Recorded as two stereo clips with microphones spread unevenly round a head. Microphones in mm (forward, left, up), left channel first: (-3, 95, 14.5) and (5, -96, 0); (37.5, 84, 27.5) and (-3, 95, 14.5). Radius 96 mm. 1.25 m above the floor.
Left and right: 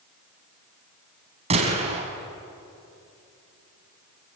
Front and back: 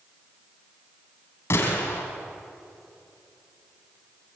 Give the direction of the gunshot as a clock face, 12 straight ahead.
1 o'clock.